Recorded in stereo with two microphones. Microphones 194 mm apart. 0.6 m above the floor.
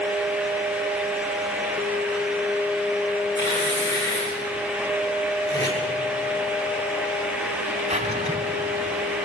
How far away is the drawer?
About 2.5 m.